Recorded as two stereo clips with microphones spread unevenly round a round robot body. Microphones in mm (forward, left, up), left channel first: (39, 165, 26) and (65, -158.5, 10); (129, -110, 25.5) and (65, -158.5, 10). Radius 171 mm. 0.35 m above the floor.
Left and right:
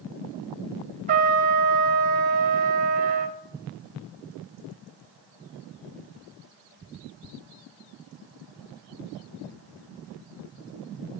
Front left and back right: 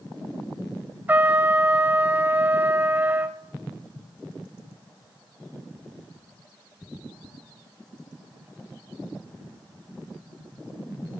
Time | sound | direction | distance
1.1 | a trumpet | 120° right | 1.3 m